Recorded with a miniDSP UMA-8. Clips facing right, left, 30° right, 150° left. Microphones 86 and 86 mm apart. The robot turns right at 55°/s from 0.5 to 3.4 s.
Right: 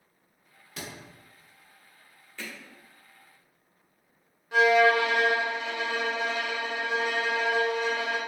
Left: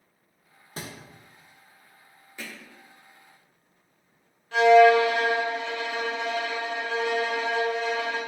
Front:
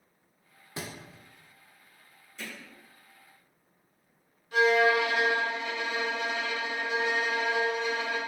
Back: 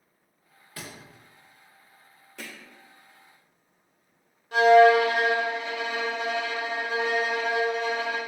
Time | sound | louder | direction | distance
0.8 | a thud | left 2 dB, front 3 dB | 35° left | 0.8 m
2.4 | hammering | even, even | 165° left | 1.2 m
4.5 | a violin | left 5 dB, back 8 dB | 170° right | 1.5 m